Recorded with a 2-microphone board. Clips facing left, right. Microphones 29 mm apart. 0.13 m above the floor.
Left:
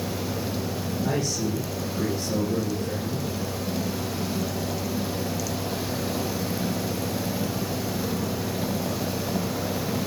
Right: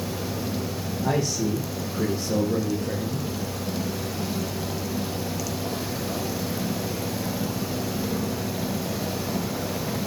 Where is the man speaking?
25° right (ahead or behind), 6 m; by 3.3 s 35° right (ahead or behind), 7 m.